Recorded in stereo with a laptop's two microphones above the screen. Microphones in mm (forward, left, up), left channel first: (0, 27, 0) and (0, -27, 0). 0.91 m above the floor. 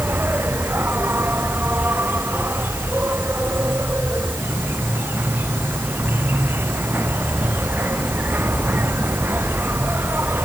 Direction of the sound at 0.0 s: 40° right (ahead or behind).